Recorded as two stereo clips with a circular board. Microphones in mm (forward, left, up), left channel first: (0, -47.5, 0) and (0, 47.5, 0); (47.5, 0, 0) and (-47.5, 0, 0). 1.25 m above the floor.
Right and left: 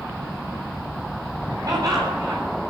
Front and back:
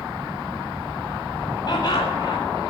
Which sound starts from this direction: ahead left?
Laughter, at 1.7 s.